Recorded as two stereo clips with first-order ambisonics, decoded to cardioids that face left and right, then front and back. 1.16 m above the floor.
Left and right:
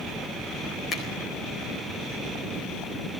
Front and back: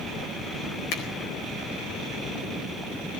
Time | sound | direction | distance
0.9 | a finger snap | 25° left | 4 m